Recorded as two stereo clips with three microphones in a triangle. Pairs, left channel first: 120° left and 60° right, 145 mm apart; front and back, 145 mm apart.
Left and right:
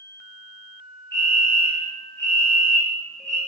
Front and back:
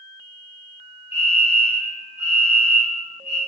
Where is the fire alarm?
50° left, 4 m.